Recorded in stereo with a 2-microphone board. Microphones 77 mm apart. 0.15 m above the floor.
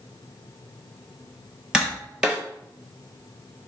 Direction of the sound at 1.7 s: 10° right (ahead or behind).